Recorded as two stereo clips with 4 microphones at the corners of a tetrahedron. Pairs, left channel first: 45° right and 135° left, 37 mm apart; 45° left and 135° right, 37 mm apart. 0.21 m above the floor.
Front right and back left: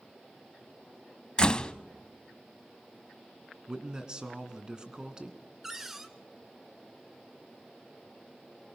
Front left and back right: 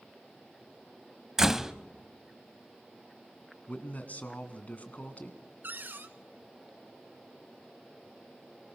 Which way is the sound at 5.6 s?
145° right.